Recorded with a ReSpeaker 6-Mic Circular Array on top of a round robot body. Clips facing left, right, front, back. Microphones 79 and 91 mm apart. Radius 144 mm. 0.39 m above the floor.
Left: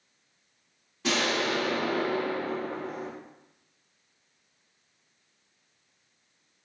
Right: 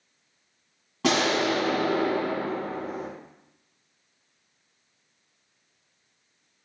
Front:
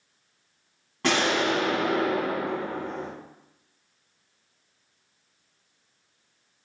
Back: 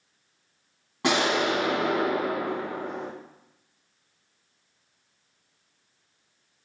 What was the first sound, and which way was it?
An explosion, 105° right.